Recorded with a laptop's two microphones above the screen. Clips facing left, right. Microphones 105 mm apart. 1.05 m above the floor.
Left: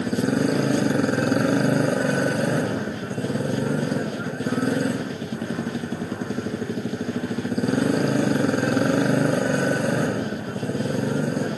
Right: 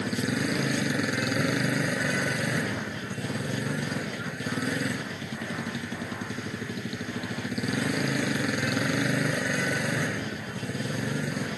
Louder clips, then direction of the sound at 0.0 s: Left 7 dB; 35° left (ahead or behind).